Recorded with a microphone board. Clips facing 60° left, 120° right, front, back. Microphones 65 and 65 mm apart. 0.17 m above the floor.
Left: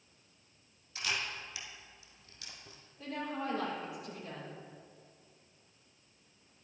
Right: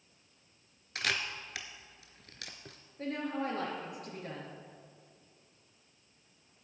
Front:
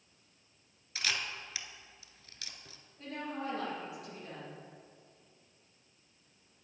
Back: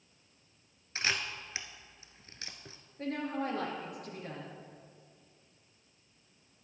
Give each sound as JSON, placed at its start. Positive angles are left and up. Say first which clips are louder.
{"t": 0.9, "sound": "a camera shutter", "louder": "right 3 dB, back 2 dB", "azimuth_deg": -125, "distance_m": 1.0}
{"t": 3.0, "sound": "a woman speaking", "louder": "right 3 dB, back 5 dB", "azimuth_deg": -145, "distance_m": 3.5}